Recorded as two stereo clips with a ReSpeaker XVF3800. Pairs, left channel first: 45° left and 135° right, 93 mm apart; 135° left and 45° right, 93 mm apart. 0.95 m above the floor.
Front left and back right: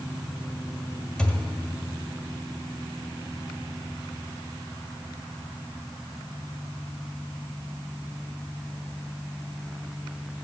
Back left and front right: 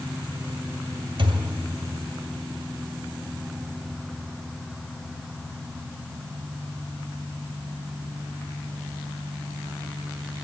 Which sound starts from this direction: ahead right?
A thud, at 1.2 s.